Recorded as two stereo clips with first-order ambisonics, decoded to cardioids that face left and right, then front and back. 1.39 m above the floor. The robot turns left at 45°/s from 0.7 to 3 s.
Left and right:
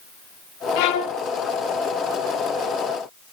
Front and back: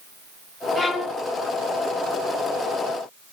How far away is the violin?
About 0.8 m.